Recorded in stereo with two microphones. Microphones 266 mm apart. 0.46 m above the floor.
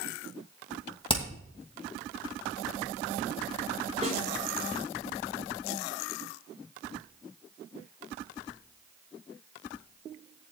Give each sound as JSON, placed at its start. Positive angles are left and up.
{"t": 1.1, "sound": "hammering", "side_deg": 20, "distance_m": 2.5}
{"t": 4.0, "sound": "a snare drum", "side_deg": -25, "distance_m": 4.5}